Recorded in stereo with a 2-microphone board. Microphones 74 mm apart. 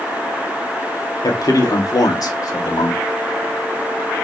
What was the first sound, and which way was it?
A man speaking, 60° left (ahead or behind).